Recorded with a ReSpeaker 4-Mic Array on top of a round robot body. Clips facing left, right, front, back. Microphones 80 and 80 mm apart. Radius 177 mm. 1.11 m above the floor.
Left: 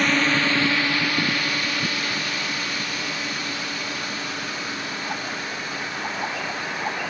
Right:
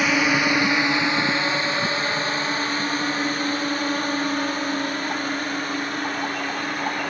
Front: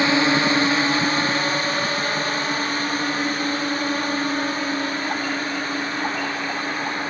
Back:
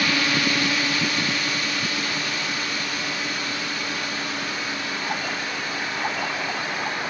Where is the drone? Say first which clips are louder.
Right 1 dB, front 5 dB; 15° right; by 7.1 s 50° right.